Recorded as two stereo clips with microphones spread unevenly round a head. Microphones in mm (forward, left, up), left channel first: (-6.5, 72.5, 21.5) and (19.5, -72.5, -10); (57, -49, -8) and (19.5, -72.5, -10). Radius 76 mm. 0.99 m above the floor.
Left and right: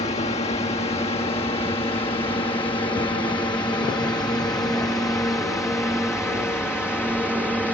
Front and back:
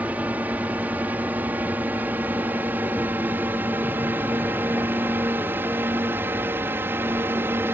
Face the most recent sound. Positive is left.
turn(degrees=-170)